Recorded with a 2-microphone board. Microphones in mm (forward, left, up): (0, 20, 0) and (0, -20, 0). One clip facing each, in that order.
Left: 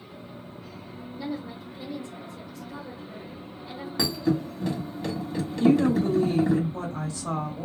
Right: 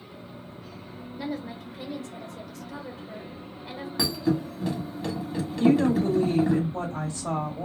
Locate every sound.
1.2 s a woman speaking: 75° right (ahead or behind), 1.1 m
4.0 s a thud: centre (ahead or behind), 1.2 m
5.6 s a woman speaking: 45° right (ahead or behind), 1.9 m